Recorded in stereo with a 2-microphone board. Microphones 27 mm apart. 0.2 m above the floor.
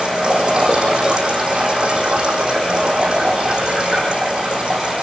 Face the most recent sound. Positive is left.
turn(degrees=-35)  # may be behind; listen again after turning